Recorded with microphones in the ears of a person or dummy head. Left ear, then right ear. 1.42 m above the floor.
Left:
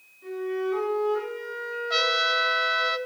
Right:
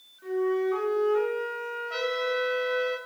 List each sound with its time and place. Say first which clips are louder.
0.2 s a flute: right 3 dB; 30° right (ahead or behind), 3.5 m
1.9 s a trumpet: left 6 dB; 35° left (ahead or behind), 0.6 m